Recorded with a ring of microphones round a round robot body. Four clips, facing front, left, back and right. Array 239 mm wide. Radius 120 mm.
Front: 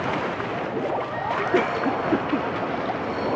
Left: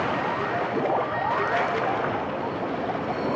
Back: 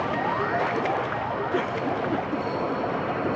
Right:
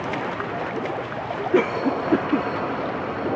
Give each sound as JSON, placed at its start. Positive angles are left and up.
{"t": 1.5, "sound": "a cough", "azimuth_deg": -70}